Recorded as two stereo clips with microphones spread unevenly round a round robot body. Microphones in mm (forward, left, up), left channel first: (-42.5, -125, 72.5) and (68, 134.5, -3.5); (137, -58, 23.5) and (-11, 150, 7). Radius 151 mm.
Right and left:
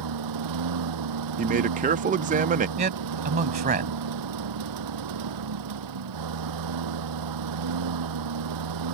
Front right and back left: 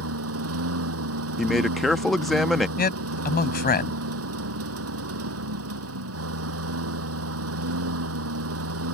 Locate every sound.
0.0 s a lawn mower: 90° left
1.4 s a man speaking: 40° left
2.8 s a man speaking: straight ahead